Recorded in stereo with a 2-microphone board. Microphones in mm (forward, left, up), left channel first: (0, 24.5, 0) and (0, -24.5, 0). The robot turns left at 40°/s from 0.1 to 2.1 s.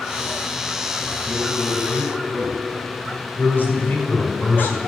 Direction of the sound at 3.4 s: 40° left (ahead or behind).